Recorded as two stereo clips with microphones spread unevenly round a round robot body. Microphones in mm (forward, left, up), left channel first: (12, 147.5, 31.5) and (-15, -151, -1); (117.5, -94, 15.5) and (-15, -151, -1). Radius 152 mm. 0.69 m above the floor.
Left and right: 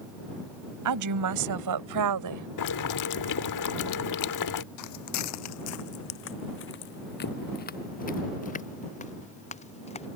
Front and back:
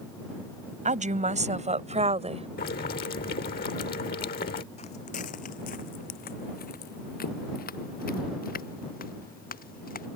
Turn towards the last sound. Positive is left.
turn(degrees=15)